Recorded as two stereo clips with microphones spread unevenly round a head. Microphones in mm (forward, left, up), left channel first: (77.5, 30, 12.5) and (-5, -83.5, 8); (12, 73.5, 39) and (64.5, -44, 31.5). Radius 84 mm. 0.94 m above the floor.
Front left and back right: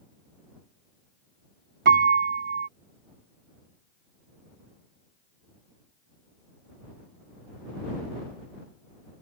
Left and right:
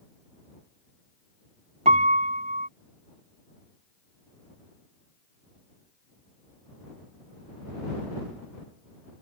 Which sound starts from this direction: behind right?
A piano, at 1.9 s.